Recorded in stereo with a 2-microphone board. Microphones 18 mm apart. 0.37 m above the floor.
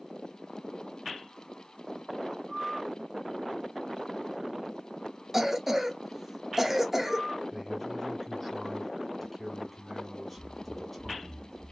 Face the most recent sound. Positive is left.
turn(degrees=-15)  # may be behind; listen again after turning